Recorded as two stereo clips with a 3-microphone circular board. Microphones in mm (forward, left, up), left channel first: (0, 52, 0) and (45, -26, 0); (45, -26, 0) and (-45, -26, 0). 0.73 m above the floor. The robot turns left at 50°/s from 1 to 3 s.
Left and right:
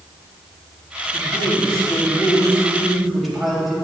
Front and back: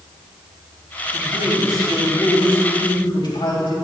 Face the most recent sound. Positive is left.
turn(degrees=30)